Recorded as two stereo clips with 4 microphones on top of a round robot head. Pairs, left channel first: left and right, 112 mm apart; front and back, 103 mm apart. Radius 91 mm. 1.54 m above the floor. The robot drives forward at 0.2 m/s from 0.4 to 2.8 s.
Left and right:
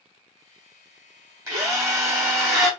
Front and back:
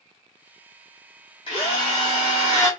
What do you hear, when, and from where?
1.5 s a drill: 35° right, 1.2 m; by 2.7 s 50° right, 1.1 m